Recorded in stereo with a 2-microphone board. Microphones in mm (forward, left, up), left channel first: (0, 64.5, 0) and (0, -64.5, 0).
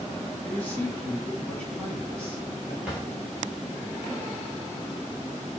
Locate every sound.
0.4 s a man speaking: 15° left (ahead or behind), 1.5 m; by 2.7 s 10° left (ahead or behind), 2.5 m
2.8 s a drawer: 10° right (ahead or behind), 1.8 m